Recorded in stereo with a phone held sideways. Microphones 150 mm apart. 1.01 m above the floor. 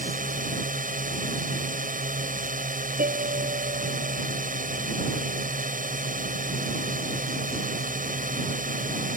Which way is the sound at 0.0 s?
65° right (ahead or behind).